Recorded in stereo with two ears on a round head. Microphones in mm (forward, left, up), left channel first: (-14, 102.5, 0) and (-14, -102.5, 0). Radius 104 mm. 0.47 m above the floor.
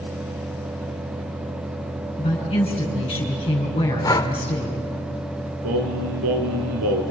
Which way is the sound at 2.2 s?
25° left (ahead or behind).